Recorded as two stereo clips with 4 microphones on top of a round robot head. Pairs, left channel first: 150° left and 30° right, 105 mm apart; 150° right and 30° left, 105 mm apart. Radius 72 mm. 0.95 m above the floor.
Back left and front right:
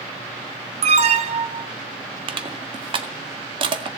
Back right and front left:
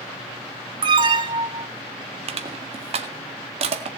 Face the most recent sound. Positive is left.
turn(degrees=10)